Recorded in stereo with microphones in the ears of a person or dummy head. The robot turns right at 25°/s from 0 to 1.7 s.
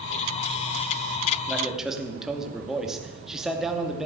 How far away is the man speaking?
About 2.5 m.